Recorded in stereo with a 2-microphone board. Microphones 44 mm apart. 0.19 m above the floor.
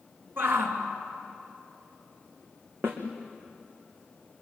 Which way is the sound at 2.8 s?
60° right (ahead or behind).